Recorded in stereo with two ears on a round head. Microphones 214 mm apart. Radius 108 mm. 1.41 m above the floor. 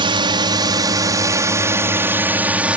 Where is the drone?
20° right (ahead or behind); by 2.8 s 5° right (ahead or behind).